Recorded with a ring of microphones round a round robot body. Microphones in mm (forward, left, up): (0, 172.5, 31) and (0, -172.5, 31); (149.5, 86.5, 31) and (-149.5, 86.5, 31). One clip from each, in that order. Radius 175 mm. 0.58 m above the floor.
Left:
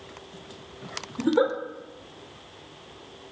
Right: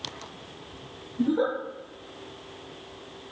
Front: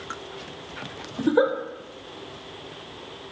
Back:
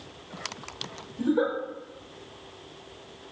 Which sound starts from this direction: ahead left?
A giggle, at 1.2 s.